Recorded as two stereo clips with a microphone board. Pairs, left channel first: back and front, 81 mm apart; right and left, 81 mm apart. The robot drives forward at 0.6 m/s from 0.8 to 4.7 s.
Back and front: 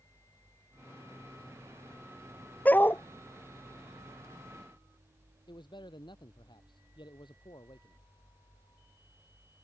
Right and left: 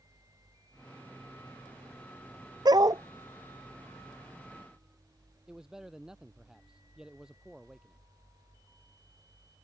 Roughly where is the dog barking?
Left.